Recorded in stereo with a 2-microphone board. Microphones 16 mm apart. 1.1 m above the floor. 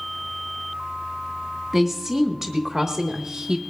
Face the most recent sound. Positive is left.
turn(degrees=-30)  # may be behind; listen again after turning